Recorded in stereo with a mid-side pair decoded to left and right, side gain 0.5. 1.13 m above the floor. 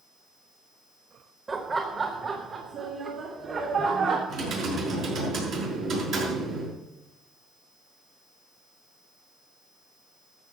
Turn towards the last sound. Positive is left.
turn(degrees=-70)